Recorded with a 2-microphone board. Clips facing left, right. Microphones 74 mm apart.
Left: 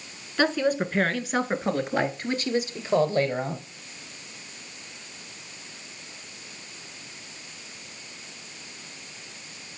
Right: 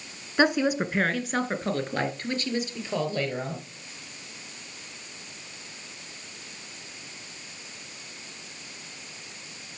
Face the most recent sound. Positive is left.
turn(degrees=30)  # may be behind; listen again after turning